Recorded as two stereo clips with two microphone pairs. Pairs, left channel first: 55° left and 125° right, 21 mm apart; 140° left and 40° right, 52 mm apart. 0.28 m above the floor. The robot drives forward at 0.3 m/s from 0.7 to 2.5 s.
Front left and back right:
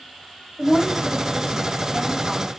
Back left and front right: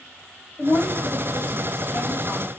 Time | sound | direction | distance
0.6 | a woman speaking | 155° left | 1.1 m